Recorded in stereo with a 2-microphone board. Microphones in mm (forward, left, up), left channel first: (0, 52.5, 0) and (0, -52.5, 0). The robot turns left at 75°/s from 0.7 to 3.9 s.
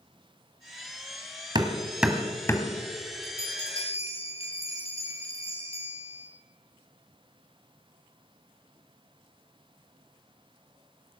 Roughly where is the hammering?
Right.